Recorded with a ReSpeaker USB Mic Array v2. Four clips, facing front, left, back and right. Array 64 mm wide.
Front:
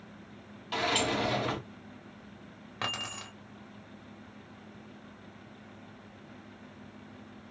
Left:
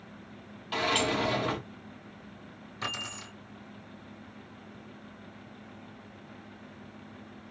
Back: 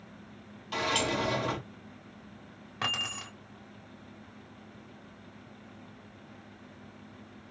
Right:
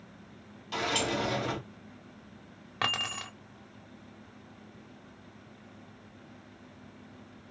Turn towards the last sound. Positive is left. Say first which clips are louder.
# right 5 dB, back 2 dB
turn(degrees=-80)